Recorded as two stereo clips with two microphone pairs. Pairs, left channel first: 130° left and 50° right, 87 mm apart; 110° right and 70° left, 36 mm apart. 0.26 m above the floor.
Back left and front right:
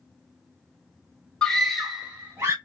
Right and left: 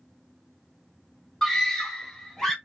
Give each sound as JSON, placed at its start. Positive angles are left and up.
{"t": 1.4, "sound": "a scream", "azimuth_deg": -165, "distance_m": 1.1}